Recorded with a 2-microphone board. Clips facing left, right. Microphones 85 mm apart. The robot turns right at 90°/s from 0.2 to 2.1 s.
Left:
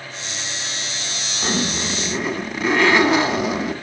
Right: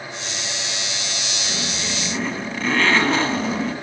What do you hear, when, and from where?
1.4 s a zipper: 110° left, 1.0 m; by 3.7 s 170° left, 1.0 m